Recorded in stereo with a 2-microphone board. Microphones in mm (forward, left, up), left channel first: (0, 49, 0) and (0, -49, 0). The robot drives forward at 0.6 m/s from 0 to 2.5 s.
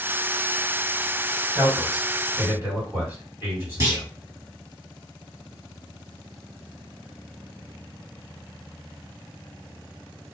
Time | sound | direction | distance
1.6 | a man speaking | 25° right (ahead or behind) | 2.5 m
3.8 | a clunk | 25° right (ahead or behind) | 1.7 m